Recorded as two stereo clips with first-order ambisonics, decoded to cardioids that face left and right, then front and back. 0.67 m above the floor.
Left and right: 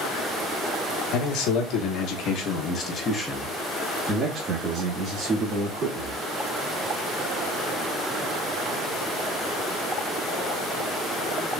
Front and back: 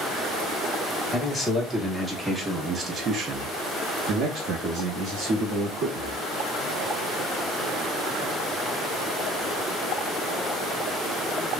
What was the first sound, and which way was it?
A man speaking, 85° left.